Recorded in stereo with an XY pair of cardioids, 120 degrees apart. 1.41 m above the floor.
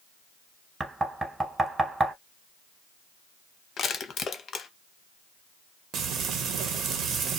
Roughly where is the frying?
Ahead right.